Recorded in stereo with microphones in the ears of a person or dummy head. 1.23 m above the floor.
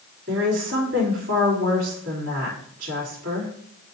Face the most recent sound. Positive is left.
turn(degrees=-60)  # may be behind; listen again after turning